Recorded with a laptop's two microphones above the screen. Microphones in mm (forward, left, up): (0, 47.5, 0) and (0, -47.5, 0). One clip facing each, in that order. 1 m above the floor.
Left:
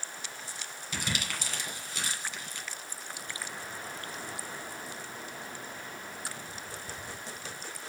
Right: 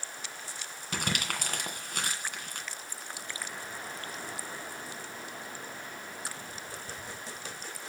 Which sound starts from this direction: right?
Crumpling, at 0.9 s.